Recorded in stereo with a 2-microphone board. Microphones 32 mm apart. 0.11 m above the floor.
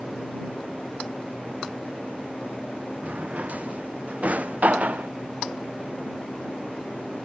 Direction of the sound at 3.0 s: 50° right (ahead or behind).